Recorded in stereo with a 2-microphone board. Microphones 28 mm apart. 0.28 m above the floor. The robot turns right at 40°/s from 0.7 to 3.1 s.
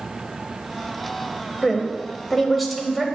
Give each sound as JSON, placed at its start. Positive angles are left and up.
{"t": 1.6, "sound": "a woman speaking", "side_deg": 15, "distance_m": 0.9}